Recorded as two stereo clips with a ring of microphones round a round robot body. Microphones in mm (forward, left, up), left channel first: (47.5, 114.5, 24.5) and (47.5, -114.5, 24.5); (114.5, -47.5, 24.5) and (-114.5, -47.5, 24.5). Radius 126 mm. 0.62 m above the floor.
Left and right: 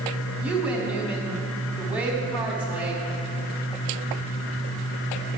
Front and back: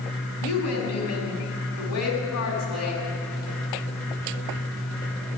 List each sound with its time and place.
0.4 s a woman speaking: 5° right, 5.5 m